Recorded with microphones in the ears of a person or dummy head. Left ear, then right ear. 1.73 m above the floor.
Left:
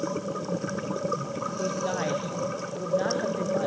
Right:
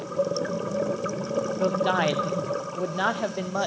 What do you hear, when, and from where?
1.6 s a man speaking: 55° right (ahead or behind), 1.1 m